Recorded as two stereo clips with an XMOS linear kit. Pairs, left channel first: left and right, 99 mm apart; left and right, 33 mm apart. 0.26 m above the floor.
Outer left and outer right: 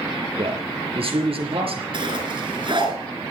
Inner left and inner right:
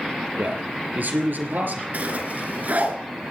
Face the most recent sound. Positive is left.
turn(degrees=-55)  # may be behind; listen again after turning